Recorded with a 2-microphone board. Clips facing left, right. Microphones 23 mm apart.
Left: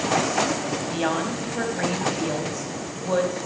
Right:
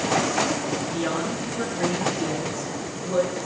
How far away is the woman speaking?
About 4 m.